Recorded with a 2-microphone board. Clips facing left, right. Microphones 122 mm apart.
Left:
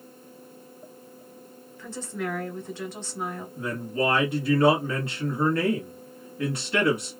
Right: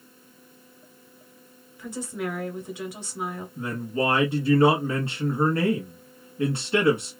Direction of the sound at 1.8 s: 10° right (ahead or behind).